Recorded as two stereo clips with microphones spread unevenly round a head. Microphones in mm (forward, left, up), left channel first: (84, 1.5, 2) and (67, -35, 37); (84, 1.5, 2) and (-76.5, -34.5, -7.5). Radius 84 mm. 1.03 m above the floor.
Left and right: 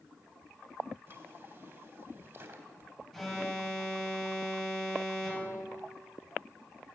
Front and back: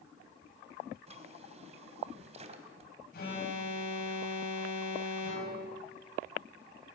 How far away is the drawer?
About 2.5 m.